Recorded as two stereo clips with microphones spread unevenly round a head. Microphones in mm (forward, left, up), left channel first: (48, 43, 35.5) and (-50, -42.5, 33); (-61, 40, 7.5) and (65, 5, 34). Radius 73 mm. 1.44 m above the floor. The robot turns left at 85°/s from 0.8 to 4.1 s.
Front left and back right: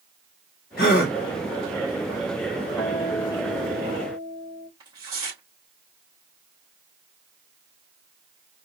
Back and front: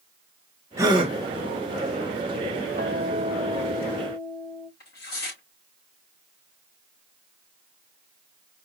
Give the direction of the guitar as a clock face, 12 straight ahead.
2 o'clock.